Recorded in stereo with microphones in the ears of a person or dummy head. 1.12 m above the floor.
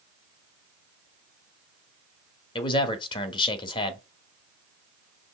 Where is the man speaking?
30° left (ahead or behind), 1.2 m.